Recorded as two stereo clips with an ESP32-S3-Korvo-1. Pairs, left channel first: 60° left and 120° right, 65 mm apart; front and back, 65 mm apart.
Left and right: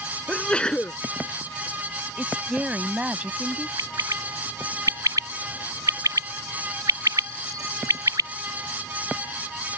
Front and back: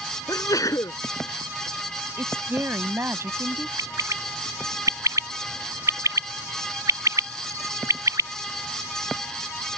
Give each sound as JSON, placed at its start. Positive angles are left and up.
{"t": 0.3, "sound": "a sneeze", "azimuth_deg": -15}
{"t": 2.2, "sound": "a woman speaking", "azimuth_deg": 180}
{"t": 3.8, "sound": "a bird", "azimuth_deg": -150}